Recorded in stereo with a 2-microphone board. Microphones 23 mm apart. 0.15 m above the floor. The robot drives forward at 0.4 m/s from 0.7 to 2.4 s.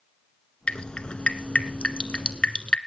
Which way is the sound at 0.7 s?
40° left (ahead or behind).